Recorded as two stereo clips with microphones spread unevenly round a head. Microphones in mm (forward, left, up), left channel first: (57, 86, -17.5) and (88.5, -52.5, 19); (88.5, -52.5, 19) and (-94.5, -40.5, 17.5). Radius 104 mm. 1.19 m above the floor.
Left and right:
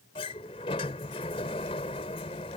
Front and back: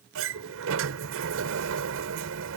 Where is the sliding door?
170° left.